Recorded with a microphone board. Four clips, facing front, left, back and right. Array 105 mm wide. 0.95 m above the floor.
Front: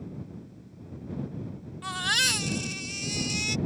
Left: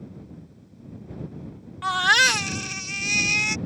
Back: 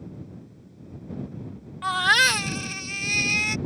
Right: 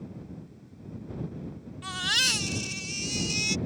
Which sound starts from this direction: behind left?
A baby crying, at 1.8 s.